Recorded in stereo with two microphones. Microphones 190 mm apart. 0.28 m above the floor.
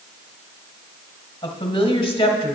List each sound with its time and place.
1.4 s a woman speaking: 30° left (ahead or behind), 1.2 m